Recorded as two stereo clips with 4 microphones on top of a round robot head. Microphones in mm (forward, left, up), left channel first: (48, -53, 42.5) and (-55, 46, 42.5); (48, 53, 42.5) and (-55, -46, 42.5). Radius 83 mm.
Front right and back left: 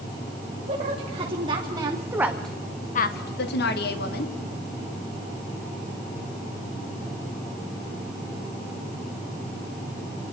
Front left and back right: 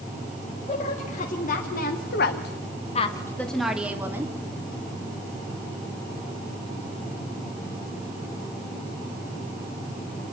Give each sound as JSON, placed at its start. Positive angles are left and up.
{"t": 0.7, "sound": "a woman speaking", "azimuth_deg": 85, "distance_m": 3.0}